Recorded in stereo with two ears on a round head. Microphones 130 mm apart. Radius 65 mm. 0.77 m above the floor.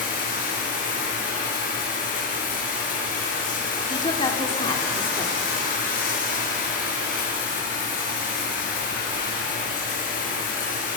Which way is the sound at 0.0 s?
60° left (ahead or behind).